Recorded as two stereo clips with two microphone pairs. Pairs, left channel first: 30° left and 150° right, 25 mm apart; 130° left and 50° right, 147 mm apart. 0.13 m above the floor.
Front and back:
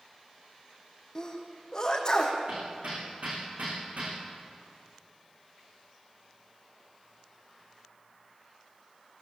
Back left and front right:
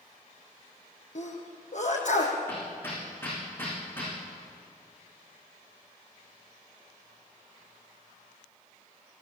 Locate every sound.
1.1 s a sneeze: 95° left, 6 m
2.5 s hammering: 155° right, 9.5 m